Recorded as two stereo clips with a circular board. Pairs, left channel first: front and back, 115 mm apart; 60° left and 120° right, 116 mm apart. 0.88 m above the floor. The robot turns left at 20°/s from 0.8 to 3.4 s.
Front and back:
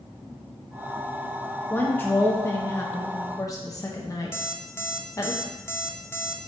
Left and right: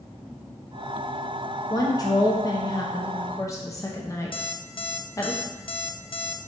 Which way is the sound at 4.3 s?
60° left.